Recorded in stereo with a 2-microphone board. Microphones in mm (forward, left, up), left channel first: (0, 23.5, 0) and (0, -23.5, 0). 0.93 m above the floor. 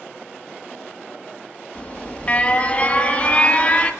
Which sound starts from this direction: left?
An alarm, at 1.8 s.